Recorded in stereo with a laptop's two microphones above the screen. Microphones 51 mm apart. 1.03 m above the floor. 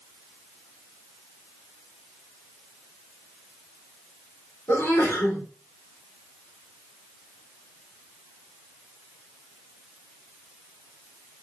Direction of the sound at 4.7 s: 80° left.